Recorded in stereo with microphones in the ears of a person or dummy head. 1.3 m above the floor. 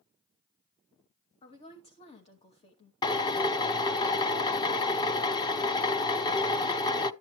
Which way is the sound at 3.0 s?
25° left (ahead or behind).